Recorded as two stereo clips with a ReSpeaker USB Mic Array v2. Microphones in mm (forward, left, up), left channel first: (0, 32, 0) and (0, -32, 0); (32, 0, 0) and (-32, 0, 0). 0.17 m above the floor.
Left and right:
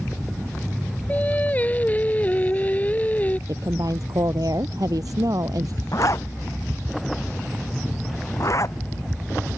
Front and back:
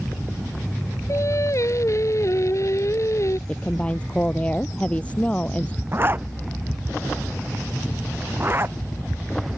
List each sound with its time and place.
1.1 s singing: 25° left
3.5 s a woman speaking: 70° right
5.9 s a zipper: 125° left